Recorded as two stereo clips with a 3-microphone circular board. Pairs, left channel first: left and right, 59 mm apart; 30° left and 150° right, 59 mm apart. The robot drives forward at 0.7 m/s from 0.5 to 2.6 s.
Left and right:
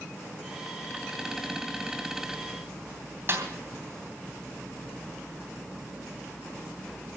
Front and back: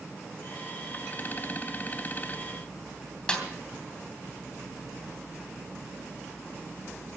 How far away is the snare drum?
About 3 m.